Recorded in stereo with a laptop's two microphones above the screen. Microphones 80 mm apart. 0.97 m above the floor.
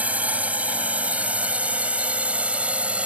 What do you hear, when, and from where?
0.0 s a drone: 15° right (ahead or behind)